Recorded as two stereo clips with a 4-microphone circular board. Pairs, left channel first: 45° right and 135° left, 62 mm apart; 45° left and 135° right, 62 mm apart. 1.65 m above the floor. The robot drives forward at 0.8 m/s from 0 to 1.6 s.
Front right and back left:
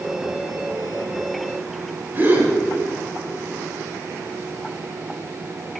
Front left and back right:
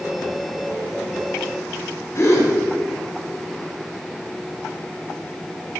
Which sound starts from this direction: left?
A gasp, at 2.1 s.